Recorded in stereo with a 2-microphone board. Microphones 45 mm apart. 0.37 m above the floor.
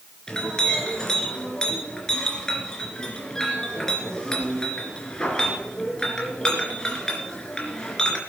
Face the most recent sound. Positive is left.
turn(degrees=15)  # may be behind; listen again after turning